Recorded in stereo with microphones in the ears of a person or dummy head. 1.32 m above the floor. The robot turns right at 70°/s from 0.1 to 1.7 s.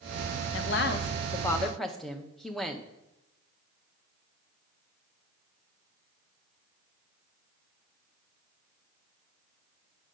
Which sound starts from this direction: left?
A woman speaking, at 0.5 s.